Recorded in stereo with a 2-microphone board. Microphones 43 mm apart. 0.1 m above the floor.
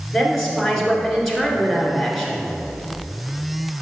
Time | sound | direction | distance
0.1 | a woman speaking | 5° left (ahead or behind) | 1.6 m